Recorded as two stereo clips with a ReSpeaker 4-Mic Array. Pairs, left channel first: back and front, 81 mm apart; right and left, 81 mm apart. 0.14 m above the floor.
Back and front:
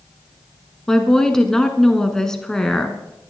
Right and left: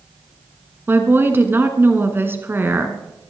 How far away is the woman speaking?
About 1.4 m.